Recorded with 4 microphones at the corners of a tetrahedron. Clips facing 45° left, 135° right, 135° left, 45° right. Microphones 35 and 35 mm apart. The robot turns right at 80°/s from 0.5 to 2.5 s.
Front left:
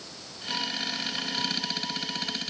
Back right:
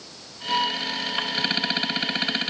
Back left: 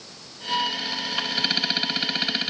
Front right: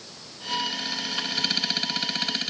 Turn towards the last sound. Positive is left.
No sound to turn to.